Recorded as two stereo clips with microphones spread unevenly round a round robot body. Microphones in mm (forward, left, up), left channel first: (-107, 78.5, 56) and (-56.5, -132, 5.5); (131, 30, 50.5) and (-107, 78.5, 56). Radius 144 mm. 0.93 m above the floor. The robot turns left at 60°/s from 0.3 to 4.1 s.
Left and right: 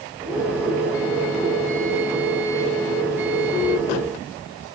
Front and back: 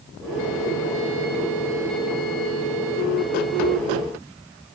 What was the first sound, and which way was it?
Only background noise.